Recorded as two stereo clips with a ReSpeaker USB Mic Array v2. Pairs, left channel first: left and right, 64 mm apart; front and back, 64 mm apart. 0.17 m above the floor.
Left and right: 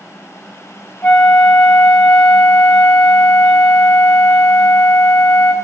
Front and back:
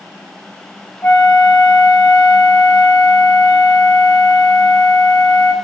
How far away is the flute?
About 3.5 m.